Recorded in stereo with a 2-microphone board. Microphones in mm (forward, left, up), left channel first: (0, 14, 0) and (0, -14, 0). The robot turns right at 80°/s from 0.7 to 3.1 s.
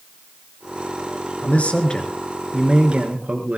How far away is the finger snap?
I don't hear a finger snap.